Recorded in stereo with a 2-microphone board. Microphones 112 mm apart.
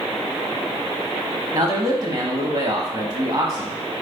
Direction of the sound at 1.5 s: 35° right (ahead or behind).